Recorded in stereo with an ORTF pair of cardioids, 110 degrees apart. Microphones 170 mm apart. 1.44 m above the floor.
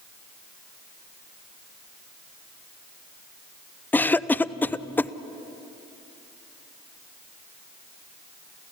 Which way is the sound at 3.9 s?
10° left.